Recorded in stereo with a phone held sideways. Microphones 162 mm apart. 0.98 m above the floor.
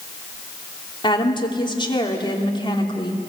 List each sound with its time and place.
1.0 s a woman speaking: 30° left (ahead or behind), 3 m